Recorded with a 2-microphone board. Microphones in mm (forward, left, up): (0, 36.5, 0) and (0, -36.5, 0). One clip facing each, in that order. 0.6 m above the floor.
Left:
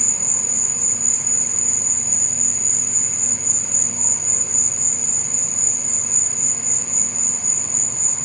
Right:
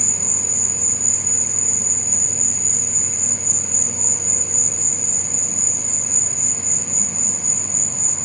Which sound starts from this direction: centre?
An insect, at 0.0 s.